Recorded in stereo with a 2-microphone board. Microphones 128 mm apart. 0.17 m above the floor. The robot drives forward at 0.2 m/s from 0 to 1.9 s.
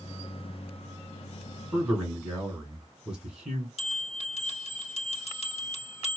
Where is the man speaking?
5° right (ahead or behind), 1.8 m.